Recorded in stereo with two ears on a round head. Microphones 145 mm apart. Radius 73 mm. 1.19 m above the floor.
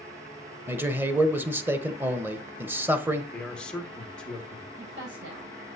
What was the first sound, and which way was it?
A man speaking, 10° right (ahead or behind).